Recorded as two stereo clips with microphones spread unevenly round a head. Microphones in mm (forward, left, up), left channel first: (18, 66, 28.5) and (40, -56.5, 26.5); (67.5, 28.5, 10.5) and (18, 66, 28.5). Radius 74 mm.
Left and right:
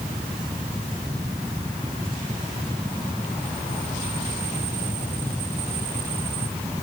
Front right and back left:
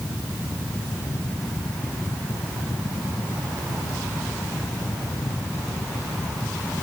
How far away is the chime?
I don't hear a chime.